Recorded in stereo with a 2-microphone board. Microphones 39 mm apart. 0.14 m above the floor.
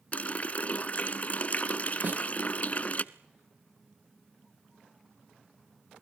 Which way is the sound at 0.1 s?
35° left (ahead or behind).